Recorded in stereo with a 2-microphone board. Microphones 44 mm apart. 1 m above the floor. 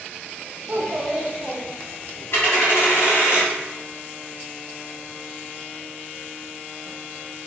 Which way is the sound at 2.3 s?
70° left (ahead or behind).